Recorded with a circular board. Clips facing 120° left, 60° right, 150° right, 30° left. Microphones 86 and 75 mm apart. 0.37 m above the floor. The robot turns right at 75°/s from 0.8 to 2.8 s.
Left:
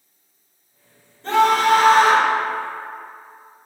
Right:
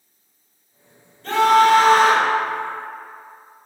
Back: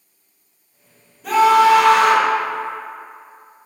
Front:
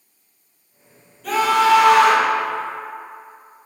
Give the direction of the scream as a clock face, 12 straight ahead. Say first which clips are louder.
Right 2 dB, back 4 dB; 7 o'clock.